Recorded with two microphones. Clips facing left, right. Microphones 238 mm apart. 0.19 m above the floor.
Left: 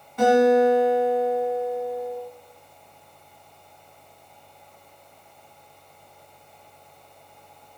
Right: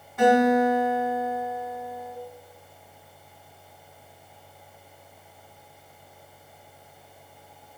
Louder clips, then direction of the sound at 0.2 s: Left 3 dB; centre (ahead or behind).